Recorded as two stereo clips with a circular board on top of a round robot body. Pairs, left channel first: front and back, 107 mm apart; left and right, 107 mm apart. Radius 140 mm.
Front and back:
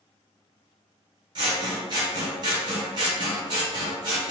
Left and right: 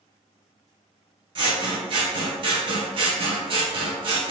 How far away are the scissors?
About 0.7 m.